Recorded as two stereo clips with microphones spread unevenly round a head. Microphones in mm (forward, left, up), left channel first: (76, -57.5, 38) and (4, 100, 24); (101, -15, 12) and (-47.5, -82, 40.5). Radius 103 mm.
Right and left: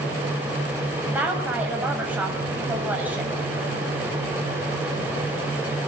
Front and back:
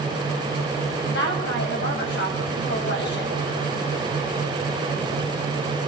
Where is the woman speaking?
35° left, 7.5 m.